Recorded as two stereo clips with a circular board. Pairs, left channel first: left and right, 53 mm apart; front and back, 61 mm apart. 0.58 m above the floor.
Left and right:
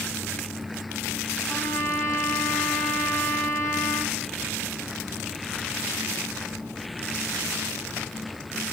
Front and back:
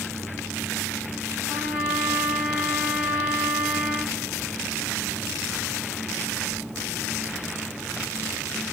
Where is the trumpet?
115° left, 2 m.